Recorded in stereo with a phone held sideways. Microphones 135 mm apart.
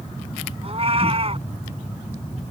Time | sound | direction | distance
0.6 | a cat meowing | 45° right (ahead or behind) | ?